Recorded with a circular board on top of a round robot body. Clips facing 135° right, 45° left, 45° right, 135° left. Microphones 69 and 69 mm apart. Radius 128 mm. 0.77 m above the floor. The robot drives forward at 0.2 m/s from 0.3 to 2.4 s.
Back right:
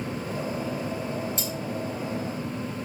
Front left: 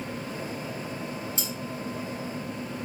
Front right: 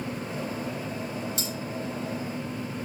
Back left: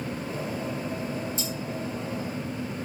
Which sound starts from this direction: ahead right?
Cutlery clinking, at 1.4 s.